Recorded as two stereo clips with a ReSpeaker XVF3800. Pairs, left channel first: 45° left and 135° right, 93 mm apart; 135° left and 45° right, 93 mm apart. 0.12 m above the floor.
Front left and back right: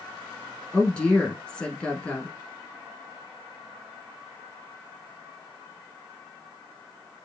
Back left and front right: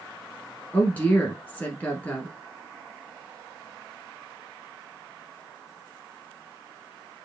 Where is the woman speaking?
105° left, 1.1 m.